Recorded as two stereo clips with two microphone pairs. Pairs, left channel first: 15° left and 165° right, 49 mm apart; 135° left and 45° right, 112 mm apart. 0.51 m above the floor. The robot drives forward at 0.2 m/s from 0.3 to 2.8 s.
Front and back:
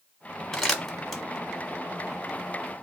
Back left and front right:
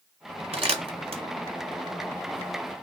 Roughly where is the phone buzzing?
I don't hear a phone buzzing.